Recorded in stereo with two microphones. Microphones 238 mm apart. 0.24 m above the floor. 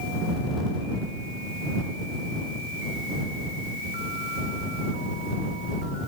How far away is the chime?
No chime in this recording.